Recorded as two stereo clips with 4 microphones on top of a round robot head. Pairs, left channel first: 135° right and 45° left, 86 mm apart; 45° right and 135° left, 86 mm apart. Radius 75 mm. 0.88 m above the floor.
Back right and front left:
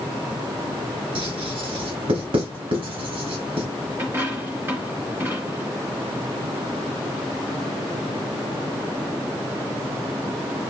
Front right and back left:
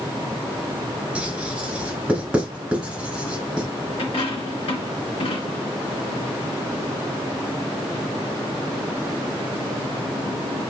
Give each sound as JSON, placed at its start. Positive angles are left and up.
{"t": 1.1, "sound": "writing", "azimuth_deg": 55, "distance_m": 4.5}
{"t": 4.0, "sound": "a dropped coin", "azimuth_deg": -20, "distance_m": 2.5}